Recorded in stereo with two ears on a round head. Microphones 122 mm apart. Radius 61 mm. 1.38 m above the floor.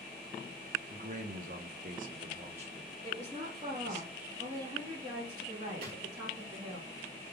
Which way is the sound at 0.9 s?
50° right (ahead or behind).